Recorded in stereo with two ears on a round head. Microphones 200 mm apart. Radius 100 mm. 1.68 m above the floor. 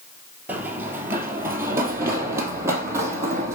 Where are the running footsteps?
10° right (ahead or behind), 1.8 m; by 3.5 s 15° right (ahead or behind), 3 m.